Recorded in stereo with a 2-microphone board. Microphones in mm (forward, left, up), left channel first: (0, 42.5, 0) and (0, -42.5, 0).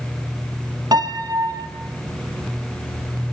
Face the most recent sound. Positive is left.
turn(degrees=-50)  # may be behind; listen again after turning